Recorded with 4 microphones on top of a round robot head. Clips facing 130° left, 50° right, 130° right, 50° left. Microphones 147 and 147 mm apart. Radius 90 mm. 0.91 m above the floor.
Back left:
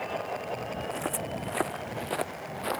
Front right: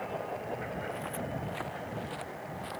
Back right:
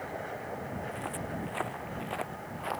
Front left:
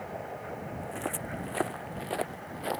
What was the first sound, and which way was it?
Footsteps, 90° left.